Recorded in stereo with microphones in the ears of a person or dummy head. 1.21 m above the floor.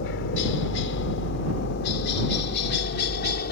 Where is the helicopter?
60° left (ahead or behind); by 3.5 s 50° left (ahead or behind).